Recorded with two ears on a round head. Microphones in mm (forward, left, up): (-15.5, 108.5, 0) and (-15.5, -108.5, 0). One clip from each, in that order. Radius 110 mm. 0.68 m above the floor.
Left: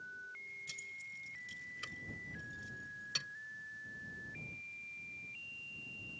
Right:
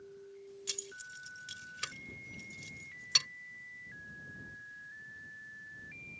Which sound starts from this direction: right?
Keys jangling, at 0.7 s.